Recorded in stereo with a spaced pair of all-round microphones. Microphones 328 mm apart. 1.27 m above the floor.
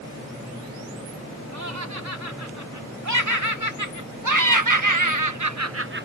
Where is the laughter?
55° right (ahead or behind); by 6.1 s 30° right (ahead or behind).